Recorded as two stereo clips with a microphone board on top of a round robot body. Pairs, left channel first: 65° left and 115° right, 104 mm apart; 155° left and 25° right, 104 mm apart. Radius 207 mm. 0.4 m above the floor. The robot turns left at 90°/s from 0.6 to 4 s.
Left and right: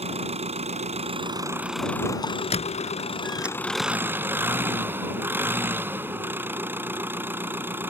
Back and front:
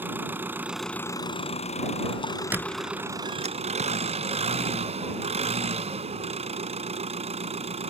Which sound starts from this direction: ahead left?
A squeak, at 2.5 s.